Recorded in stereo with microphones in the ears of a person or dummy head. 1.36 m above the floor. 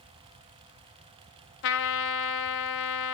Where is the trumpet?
65° left (ahead or behind), 1.3 m.